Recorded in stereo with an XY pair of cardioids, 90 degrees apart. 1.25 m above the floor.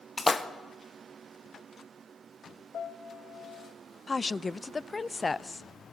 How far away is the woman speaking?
About 0.5 m.